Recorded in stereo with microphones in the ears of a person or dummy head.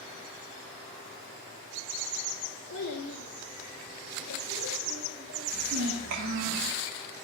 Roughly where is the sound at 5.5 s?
Right.